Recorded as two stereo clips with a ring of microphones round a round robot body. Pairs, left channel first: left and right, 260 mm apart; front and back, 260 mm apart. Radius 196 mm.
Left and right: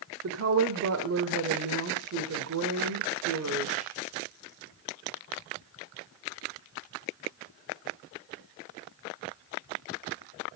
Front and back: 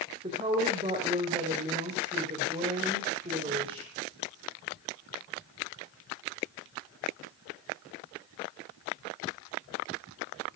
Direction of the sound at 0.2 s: 110° right.